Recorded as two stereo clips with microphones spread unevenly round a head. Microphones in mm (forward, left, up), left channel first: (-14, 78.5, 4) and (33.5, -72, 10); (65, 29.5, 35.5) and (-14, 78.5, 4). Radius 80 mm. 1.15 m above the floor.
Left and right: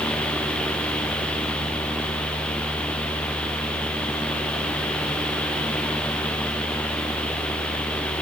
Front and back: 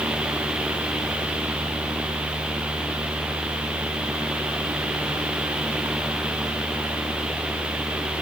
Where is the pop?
No pop in this recording.